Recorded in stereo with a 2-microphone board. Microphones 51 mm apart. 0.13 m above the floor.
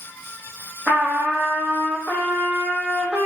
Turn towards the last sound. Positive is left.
turn(degrees=-5)  # may be behind; listen again after turning